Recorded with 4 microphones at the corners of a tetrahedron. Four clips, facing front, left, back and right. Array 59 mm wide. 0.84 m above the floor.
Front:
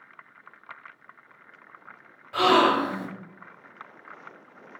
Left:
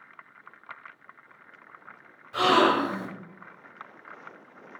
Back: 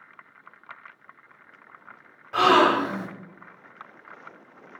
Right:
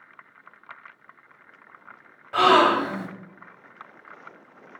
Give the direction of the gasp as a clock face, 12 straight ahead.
4 o'clock.